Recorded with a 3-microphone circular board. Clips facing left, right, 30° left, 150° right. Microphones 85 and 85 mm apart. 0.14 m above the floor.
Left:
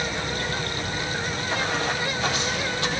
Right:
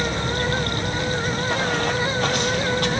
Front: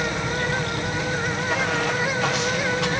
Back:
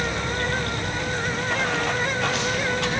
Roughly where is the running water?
Ahead right.